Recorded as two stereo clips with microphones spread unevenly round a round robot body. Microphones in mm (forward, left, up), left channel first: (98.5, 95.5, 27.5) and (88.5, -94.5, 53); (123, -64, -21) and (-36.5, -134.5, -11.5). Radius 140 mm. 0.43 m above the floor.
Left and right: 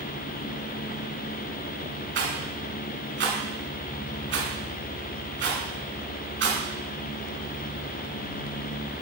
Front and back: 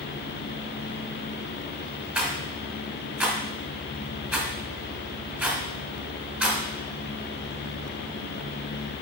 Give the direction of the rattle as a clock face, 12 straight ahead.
3 o'clock.